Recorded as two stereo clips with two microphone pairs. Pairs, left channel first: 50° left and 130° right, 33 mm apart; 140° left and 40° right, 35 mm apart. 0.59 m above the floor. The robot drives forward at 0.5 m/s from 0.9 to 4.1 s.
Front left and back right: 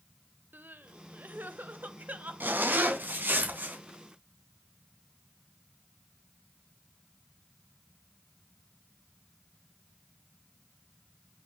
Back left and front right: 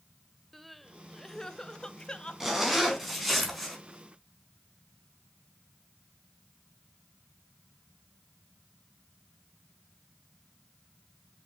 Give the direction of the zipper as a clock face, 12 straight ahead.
4 o'clock.